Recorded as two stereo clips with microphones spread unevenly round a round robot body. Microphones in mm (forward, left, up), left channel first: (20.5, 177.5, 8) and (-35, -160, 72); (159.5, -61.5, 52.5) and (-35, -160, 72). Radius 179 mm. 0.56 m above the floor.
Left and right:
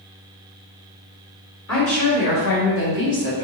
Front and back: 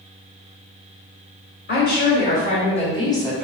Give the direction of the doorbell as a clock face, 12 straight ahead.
No doorbell in this recording.